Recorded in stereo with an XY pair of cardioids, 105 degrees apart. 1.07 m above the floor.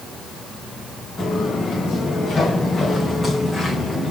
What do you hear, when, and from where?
1.2 s footsteps: 40° left, 4 m; by 4.1 s straight ahead, 3.5 m